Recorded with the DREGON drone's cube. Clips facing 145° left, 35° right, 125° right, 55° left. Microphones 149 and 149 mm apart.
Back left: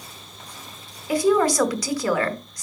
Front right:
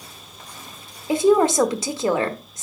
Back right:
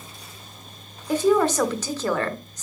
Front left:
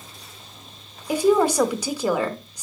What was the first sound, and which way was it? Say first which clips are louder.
A woman speaking: front right 3 dB, front left 1 dB; 10° right.